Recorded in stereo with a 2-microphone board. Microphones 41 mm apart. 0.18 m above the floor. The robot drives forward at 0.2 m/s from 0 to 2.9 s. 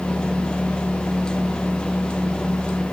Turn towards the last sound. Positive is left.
No sound to turn to.